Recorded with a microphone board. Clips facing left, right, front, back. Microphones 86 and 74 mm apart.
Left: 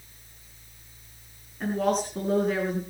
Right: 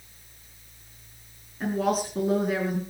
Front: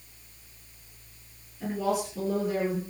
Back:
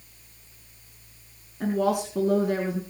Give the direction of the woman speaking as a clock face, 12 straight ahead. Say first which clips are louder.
Even, back 4 dB; 6 o'clock.